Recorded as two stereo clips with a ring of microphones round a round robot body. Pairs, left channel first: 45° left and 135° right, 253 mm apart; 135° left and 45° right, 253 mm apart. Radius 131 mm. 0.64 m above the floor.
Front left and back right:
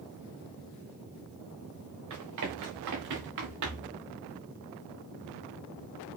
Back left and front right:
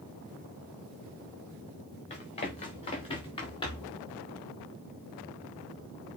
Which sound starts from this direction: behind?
Running footsteps, at 2.1 s.